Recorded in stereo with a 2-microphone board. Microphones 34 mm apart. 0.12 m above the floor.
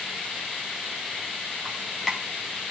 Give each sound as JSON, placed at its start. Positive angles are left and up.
{"t": 1.6, "sound": "dripping", "side_deg": 5, "distance_m": 4.0}